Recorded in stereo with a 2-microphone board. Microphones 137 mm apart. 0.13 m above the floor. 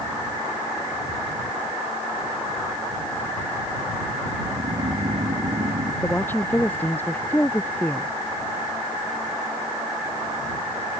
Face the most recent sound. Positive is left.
turn(degrees=15)  # may be behind; listen again after turning